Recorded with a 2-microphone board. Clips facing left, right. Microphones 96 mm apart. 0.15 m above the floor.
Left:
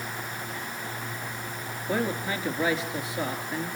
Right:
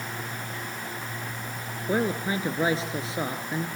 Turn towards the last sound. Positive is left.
turn(degrees=-30)  # may be behind; listen again after turning